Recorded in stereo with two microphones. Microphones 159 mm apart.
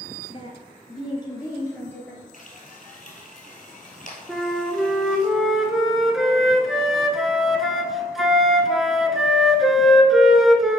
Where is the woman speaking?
35° left (ahead or behind), 1.6 m; by 2.2 s 10° left (ahead or behind), 1.8 m.